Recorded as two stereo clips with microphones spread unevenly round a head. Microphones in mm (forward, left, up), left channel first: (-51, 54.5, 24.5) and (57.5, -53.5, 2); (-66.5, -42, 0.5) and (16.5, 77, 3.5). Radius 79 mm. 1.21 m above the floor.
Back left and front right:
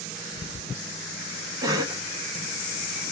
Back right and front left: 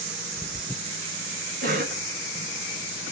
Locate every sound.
1.6 s a cough: 20° left, 1.0 m